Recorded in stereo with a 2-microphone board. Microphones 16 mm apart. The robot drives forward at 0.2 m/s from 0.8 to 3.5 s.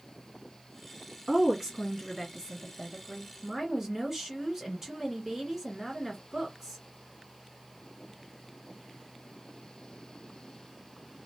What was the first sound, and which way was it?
A woman speaking, 30° right (ahead or behind).